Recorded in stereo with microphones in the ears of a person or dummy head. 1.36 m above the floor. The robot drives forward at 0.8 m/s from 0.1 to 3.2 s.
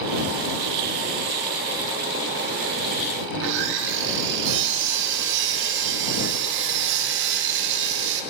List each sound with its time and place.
3.3 s sawing: 65° right (ahead or behind), 0.7 m